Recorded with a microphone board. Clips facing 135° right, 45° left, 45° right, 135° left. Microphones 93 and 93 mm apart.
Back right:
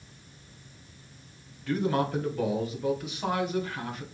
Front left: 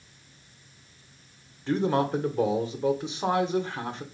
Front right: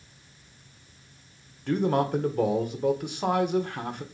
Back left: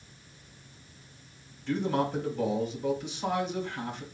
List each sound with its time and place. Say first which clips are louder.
1.7 s a man speaking: front left 3 dB, front right 4 dB; 15° right, 1.7 m